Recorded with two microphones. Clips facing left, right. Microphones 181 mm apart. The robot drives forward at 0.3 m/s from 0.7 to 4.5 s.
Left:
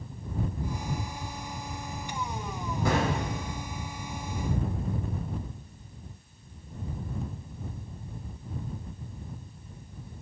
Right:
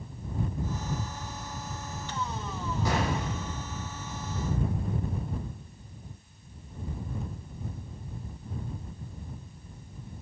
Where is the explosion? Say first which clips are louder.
Left 3 dB; 55° left (ahead or behind), 4.5 m; by 3.5 s 50° left (ahead or behind), 5 m.